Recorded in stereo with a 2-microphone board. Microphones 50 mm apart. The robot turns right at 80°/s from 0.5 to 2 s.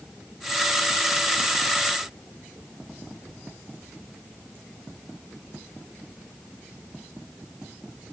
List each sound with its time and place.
Only background noise.